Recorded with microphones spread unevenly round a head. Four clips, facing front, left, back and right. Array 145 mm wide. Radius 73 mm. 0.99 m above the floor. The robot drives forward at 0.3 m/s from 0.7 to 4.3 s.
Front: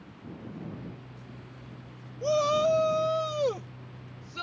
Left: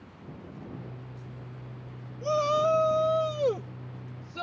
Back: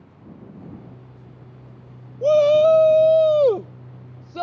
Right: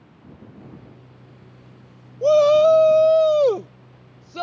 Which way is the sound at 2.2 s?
135° right.